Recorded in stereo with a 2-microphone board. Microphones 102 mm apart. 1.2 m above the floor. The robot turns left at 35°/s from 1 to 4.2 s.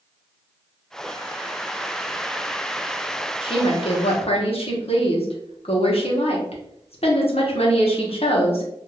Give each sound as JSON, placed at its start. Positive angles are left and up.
{"t": 3.4, "sound": "a woman speaking", "side_deg": 55, "distance_m": 1.0}